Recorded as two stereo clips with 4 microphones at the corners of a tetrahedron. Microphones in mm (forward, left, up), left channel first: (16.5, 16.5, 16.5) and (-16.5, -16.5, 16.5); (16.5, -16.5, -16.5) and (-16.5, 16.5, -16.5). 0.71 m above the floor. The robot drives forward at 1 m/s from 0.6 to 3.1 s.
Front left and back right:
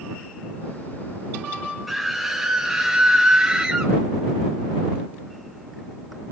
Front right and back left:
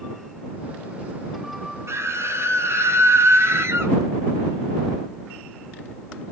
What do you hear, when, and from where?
1.9 s a scream: 135° left, 3.5 m; by 4.0 s 150° left, 4.5 m